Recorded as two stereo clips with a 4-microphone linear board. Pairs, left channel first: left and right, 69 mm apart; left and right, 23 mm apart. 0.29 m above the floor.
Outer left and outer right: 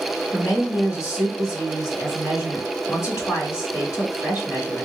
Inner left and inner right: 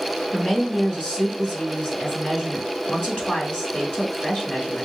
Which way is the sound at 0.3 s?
55° left (ahead or behind).